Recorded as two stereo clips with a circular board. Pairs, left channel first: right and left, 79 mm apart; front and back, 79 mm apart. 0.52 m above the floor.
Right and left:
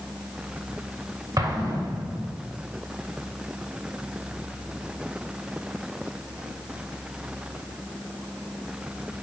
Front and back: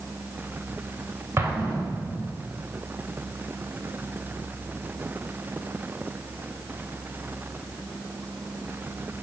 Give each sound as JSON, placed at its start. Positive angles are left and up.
{"t": 1.4, "sound": "an explosion", "azimuth_deg": 125, "distance_m": 2.5}